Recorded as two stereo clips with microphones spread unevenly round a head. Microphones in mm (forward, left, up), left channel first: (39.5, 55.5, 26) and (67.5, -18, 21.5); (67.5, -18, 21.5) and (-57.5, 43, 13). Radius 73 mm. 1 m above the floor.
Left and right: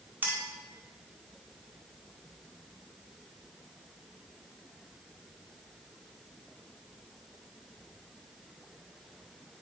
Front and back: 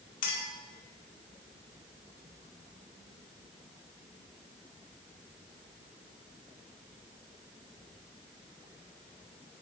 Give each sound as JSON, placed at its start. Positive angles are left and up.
{"t": 0.2, "sound": "a clink", "azimuth_deg": -5, "distance_m": 1.4}